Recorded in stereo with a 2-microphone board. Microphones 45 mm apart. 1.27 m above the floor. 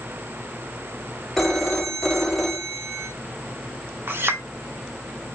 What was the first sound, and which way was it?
A phone ringing, 5° left (ahead or behind).